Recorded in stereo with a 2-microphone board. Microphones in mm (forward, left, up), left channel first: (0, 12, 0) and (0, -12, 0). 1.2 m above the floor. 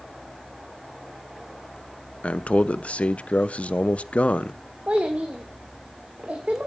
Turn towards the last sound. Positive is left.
turn(degrees=-70)  # may be behind; listen again after turning